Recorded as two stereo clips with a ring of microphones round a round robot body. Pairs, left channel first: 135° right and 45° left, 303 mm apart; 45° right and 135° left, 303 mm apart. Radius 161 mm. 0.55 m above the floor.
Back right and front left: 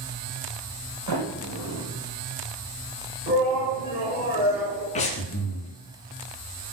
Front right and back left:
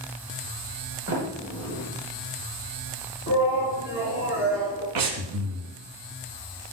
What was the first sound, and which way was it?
A sliding door, 80° left.